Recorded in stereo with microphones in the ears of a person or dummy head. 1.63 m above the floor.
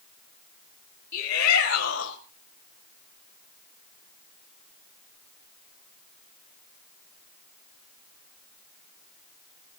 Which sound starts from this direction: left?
A shout, at 1.1 s.